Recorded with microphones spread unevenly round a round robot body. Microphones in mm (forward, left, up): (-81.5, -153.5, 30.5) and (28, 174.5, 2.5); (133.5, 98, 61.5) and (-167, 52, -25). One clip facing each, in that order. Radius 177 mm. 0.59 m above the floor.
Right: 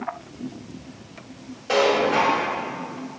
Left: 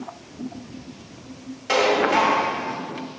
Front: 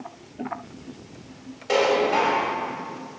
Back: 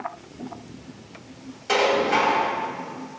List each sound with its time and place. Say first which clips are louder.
1.7 s dishes clattering: even, front 1 dB; 135° left, 2.5 m